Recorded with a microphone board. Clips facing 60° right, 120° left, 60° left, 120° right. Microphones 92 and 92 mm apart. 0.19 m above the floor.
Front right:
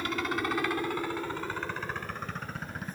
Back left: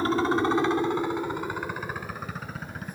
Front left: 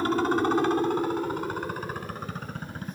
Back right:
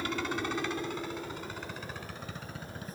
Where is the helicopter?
85° left; by 3.0 s 30° left.